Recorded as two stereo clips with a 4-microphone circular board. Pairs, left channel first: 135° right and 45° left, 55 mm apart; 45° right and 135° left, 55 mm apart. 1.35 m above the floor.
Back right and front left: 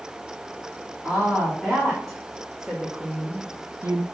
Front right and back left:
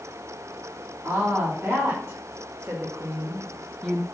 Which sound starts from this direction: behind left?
A woman speaking, at 1.0 s.